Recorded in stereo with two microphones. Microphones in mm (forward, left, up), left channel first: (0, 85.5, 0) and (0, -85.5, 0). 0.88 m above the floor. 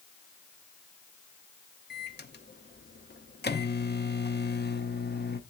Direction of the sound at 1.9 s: 75° left (ahead or behind).